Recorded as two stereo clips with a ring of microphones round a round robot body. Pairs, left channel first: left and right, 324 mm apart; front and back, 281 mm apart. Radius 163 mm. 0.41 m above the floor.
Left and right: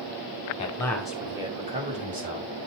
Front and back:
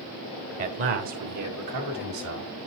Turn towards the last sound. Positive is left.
turn(degrees=-150)